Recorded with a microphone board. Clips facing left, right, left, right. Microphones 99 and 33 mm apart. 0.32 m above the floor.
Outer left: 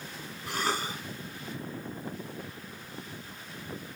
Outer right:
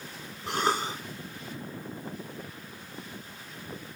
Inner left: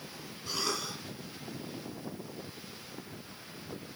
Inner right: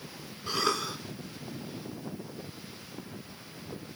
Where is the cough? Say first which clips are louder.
Outer right 4 dB, inner right 5 dB; 25° right (ahead or behind), 2.5 m.